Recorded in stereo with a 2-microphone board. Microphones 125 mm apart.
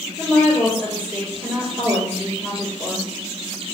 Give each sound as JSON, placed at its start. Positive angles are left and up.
{"t": 0.2, "sound": "a woman speaking", "side_deg": 15, "distance_m": 1.9}